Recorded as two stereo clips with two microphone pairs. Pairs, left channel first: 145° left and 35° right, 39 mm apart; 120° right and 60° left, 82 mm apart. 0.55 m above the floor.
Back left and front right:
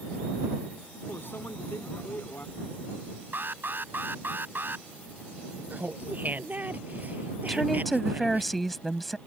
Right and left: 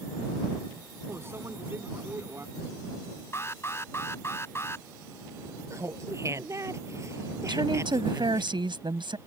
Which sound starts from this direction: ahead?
Laughter, at 5.7 s.